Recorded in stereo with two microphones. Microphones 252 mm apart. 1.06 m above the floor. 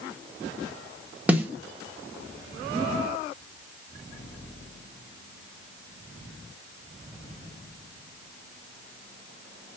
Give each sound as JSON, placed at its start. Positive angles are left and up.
{"t": 1.3, "sound": "a snare drum", "side_deg": -5, "distance_m": 1.0}